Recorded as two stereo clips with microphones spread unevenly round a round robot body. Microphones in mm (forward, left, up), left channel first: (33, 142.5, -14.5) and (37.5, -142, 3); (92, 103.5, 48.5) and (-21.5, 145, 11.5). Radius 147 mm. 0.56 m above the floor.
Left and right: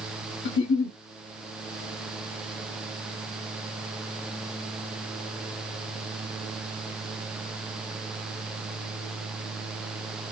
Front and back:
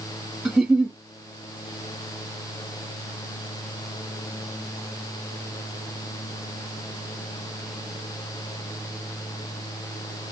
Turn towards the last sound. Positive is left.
turn(degrees=100)